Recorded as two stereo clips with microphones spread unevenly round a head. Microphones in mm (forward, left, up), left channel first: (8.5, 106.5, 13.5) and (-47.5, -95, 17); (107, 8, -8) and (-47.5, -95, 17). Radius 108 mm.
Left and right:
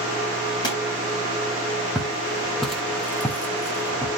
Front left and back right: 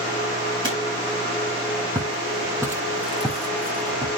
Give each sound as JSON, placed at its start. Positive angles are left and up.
{"t": 0.6, "sound": "a pop", "azimuth_deg": 145, "distance_m": 6.5}
{"t": 1.9, "sound": "footsteps", "azimuth_deg": 170, "distance_m": 1.5}